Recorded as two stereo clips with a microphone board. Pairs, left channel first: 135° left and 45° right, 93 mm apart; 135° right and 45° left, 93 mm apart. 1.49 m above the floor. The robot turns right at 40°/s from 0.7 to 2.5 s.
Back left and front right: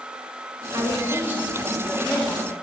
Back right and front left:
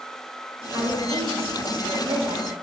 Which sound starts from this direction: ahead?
A woman speaking, at 0.7 s.